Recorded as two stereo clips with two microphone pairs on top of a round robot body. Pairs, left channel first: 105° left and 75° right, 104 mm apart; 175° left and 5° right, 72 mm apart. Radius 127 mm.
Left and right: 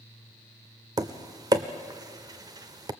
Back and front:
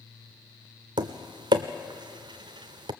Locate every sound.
1.0 s tapping: 20° right, 0.6 m